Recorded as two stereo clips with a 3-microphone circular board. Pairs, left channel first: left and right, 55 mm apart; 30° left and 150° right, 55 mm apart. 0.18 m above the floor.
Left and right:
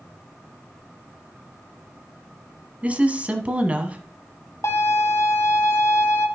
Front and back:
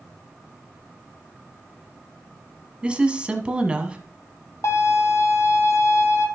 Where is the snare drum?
I don't hear a snare drum.